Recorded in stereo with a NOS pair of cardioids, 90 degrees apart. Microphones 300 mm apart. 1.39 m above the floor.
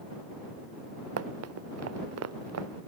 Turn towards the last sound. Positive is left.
turn(degrees=-60)